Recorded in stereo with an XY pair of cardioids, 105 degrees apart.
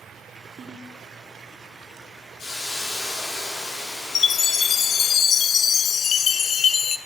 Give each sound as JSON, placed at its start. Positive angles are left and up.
{"t": 0.6, "sound": "a ringtone", "azimuth_deg": -55, "distance_m": 3.0}
{"t": 2.4, "sound": "a hiss", "azimuth_deg": 65, "distance_m": 9.0}
{"t": 4.2, "sound": "a chime", "azimuth_deg": 55, "distance_m": 0.6}